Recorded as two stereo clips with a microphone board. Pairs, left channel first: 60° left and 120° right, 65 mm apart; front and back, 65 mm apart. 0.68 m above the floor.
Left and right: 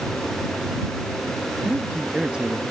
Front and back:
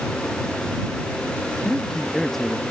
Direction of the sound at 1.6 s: 80° right.